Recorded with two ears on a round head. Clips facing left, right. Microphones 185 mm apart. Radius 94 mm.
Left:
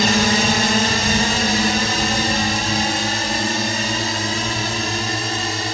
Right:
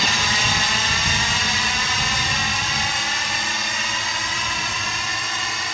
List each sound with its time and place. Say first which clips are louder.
0.0 s a drone: left 9 dB; 40° left (ahead or behind); by 5.8 s 30° left (ahead or behind)